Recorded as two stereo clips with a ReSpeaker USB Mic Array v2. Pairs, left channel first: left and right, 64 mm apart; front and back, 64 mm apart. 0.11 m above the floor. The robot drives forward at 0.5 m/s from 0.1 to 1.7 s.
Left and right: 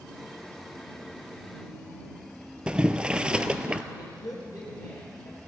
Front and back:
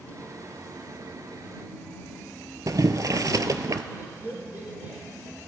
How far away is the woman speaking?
About 4 m.